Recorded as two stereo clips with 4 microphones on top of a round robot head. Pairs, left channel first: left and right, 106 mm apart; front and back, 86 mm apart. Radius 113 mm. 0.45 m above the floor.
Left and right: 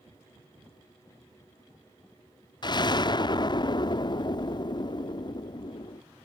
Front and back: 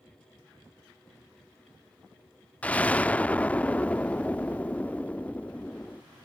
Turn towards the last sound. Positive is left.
turn(degrees=70)